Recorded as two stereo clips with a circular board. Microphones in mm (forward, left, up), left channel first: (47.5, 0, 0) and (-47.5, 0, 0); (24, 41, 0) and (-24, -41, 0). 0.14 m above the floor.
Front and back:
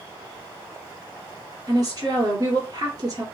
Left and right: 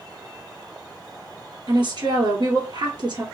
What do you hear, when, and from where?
1.7 s a woman speaking: 140° right, 1.9 m